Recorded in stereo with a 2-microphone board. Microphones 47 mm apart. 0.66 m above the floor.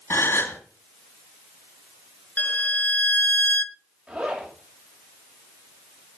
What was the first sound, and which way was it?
A gasp, 55° left (ahead or behind).